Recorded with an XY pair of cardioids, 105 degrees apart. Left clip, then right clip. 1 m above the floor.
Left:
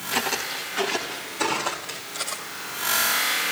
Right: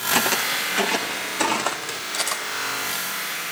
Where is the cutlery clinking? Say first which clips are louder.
Right 7 dB; 65° right, 4 m.